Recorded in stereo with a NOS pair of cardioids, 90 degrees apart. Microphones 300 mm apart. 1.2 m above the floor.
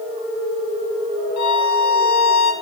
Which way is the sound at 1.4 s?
65° left.